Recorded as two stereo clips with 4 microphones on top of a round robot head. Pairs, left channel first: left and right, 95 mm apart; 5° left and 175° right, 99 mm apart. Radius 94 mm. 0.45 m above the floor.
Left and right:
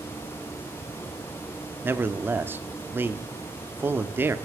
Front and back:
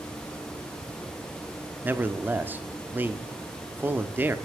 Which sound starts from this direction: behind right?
A man speaking, at 1.8 s.